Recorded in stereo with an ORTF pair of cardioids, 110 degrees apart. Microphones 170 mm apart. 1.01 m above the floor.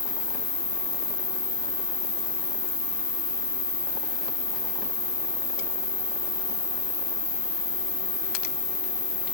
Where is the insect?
30° left, 1.1 m.